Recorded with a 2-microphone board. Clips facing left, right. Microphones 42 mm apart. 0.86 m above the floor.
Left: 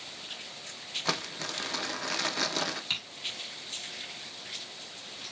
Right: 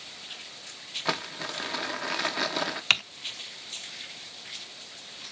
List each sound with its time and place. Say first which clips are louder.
1.1 s crumpling: right 3 dB; 10° right (ahead or behind), 0.7 m
2.9 s typing on a keyboard: right 15 dB; 65° right (ahead or behind), 0.5 m